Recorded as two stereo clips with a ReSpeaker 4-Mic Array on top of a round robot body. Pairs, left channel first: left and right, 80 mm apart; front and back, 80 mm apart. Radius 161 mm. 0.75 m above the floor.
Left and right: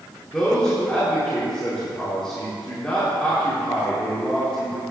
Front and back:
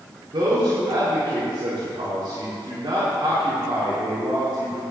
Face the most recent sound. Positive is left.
turn(degrees=170)